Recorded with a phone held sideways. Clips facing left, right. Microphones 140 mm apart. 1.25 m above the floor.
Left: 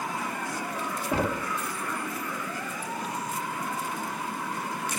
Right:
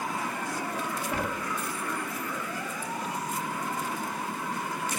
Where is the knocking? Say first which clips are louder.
Left 7 dB; 30° left (ahead or behind).